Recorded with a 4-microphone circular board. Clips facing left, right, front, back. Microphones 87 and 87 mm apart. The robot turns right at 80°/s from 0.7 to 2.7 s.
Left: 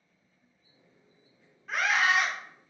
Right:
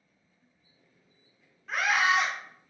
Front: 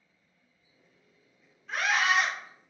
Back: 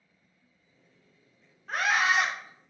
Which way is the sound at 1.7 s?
175° left.